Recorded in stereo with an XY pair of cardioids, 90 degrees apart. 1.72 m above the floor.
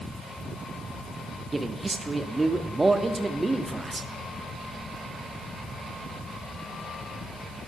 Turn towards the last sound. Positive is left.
turn(degrees=-25)